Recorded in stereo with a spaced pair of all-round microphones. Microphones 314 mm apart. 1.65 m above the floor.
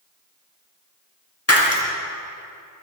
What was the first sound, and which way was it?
Breaking glass, 50° left (ahead or behind).